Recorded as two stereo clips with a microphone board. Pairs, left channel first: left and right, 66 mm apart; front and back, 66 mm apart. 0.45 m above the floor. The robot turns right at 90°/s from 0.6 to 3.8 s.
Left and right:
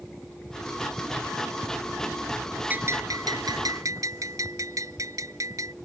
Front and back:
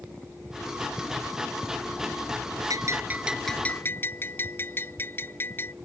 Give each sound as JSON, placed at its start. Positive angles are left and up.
{"t": 2.7, "sound": "a bell", "azimuth_deg": -155}